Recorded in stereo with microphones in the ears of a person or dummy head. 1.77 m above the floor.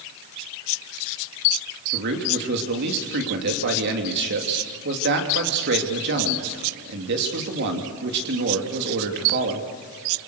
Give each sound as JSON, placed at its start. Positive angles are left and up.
{"t": 1.9, "sound": "a man speaking", "side_deg": -60, "distance_m": 3.0}